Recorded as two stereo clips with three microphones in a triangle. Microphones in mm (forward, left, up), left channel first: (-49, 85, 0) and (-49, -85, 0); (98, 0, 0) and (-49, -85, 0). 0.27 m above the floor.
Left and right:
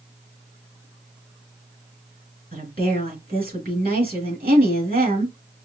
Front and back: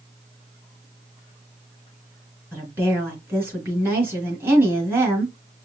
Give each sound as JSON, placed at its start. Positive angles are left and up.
{"t": 2.5, "sound": "a woman speaking", "azimuth_deg": -75, "distance_m": 3.0}